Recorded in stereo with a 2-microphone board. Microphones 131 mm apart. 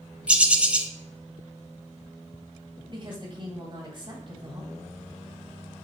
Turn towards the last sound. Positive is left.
turn(degrees=-40)  # may be behind; listen again after turning